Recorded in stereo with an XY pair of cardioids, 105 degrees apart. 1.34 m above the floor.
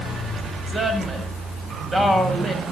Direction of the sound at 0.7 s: 20° right.